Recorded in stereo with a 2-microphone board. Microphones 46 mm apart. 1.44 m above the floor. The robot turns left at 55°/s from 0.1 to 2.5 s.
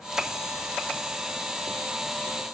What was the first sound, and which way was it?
Only background noise.